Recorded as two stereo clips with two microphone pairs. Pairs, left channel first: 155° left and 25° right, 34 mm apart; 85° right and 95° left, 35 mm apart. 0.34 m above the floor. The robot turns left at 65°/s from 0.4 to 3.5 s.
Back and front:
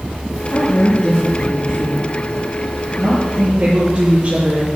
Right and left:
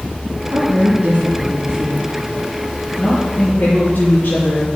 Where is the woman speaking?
120° left, 5 m; by 4.7 s 75° right, 5 m.